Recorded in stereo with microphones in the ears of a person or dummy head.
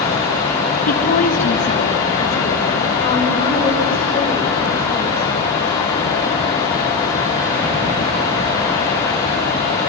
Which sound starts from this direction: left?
A woman speaking, at 0.9 s.